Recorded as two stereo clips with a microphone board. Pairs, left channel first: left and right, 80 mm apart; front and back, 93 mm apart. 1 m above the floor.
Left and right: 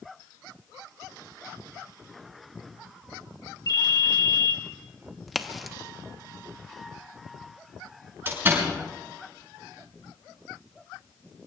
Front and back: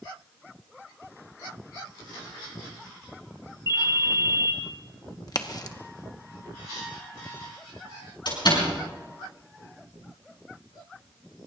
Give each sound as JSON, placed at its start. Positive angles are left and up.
{"t": 3.7, "sound": "a ringtone", "azimuth_deg": 125, "distance_m": 2.5}
{"t": 5.3, "sound": "a crack", "azimuth_deg": 0, "distance_m": 1.0}
{"t": 8.2, "sound": "a door slam", "azimuth_deg": -30, "distance_m": 6.5}